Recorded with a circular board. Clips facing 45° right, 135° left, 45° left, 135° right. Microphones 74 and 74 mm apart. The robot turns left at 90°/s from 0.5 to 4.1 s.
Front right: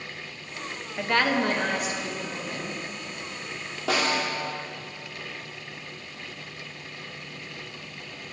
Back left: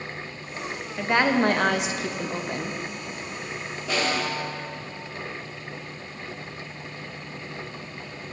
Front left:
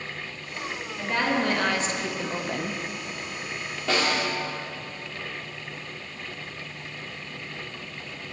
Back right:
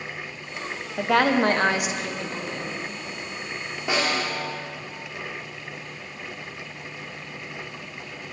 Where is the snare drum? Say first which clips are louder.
Front right 1 dB, even; 60° right, 2 m; by 4.3 s 80° right, 2 m.